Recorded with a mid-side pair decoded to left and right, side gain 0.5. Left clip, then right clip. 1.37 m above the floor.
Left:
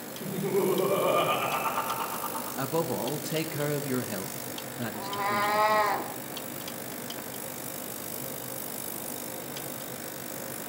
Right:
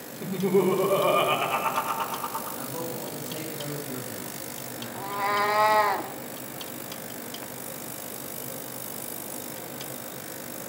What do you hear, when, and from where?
0.2 s laughter: 25° right, 5.5 m
2.6 s a man speaking: 55° left, 1.5 m
5.0 s a cat meowing: 15° right, 1.7 m